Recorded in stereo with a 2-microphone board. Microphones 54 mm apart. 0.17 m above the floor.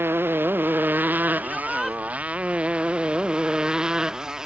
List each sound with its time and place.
0.0 s a motorcycle: 45° right (ahead or behind); by 4.5 s 10° right (ahead or behind)
1.4 s a shout: centre (ahead or behind)